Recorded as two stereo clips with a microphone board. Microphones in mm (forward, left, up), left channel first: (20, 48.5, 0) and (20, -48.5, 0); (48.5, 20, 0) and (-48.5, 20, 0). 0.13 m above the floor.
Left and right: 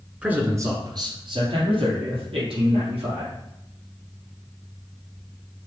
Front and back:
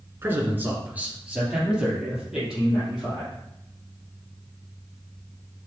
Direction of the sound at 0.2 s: 150° right.